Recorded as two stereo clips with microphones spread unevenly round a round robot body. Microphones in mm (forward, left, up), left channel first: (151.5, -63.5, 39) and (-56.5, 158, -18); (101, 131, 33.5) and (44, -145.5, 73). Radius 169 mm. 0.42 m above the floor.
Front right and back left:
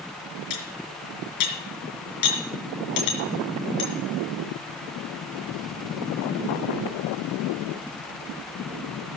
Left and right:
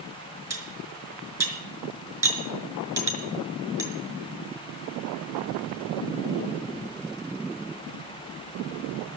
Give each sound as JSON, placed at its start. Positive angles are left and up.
{"t": 0.5, "sound": "cutlery clinking", "azimuth_deg": -20, "distance_m": 4.5}